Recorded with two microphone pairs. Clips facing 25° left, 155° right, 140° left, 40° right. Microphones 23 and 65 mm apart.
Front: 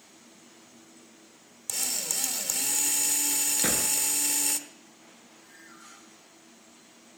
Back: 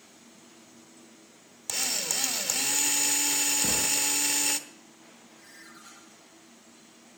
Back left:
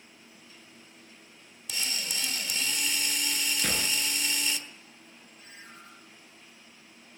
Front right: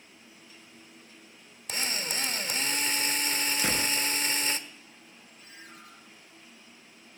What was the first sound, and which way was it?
A drill, 85° right.